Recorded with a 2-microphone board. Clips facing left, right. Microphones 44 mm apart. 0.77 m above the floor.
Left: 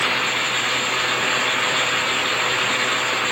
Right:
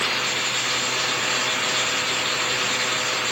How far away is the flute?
No flute in this recording.